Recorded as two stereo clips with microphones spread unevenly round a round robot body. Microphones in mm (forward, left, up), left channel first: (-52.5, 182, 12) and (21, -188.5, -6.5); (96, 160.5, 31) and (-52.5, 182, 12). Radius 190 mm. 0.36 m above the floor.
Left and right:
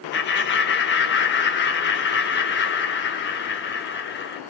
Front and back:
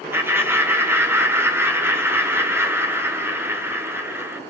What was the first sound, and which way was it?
Laughter, 130° left.